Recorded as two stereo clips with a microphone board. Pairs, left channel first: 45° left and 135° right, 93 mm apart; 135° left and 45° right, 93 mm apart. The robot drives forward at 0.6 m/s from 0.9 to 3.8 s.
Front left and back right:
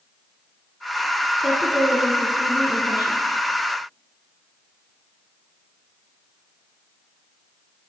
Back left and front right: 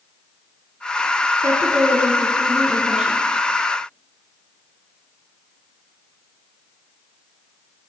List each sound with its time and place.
1.4 s a woman speaking: 50° right, 1.8 m; by 3.2 s 120° right, 1.8 m